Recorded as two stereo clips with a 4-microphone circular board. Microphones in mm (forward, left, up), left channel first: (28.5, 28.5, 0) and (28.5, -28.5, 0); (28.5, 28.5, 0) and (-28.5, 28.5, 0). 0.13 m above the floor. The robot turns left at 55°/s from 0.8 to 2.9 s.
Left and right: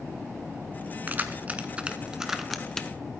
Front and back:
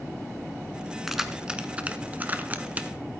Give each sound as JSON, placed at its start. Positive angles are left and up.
{"t": 1.1, "sound": "keys jangling", "azimuth_deg": -100, "distance_m": 0.8}